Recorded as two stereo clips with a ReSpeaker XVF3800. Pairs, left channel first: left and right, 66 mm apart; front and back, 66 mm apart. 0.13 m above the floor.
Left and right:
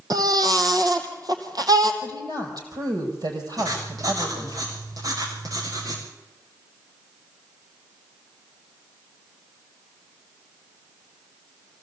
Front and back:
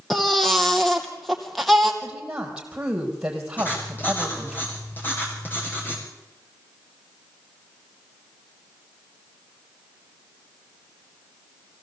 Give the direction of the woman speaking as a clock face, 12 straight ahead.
3 o'clock.